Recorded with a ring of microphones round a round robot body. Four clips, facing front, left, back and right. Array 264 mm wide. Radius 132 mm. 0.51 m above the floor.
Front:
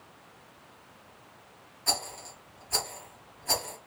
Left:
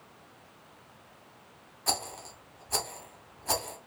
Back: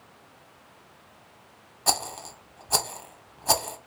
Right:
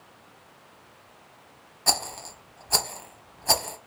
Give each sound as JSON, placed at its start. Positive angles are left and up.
{"t": 1.9, "sound": "a rattle", "azimuth_deg": -145, "distance_m": 0.7}